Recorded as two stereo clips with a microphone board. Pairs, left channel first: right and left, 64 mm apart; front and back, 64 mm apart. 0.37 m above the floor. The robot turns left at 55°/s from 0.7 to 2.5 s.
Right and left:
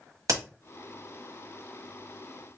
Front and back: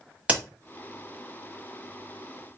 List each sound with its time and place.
0.3 s a crack: 110° left, 1.3 m